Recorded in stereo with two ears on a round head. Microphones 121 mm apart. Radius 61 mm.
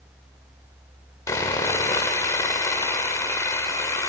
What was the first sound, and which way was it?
Sawing, 25° left (ahead or behind).